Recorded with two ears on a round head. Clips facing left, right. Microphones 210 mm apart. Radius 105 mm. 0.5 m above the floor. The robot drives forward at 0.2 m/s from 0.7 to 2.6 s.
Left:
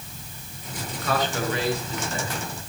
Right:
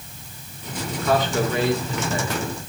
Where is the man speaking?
80° right, 6.5 m.